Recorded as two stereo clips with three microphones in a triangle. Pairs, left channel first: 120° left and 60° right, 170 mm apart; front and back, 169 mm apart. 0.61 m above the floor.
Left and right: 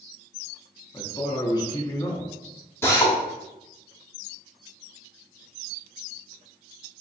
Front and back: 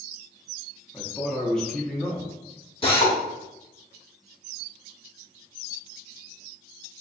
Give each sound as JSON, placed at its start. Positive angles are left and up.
{"t": 0.9, "sound": "a man speaking", "azimuth_deg": 80, "distance_m": 0.7}
{"t": 2.8, "sound": "a drill", "azimuth_deg": 45, "distance_m": 1.1}